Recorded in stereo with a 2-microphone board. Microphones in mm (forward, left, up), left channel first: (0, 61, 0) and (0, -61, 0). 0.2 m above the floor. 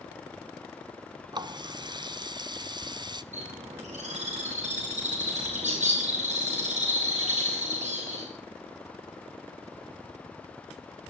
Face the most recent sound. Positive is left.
turn(degrees=-75)  # may be behind; listen again after turning